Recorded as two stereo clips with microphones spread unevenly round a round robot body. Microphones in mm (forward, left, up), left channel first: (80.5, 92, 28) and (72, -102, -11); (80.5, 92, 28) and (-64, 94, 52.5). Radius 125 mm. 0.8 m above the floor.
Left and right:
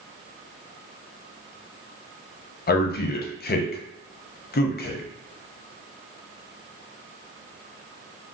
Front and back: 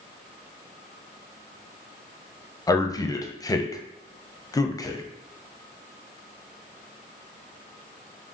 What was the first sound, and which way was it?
A man speaking, 50° left.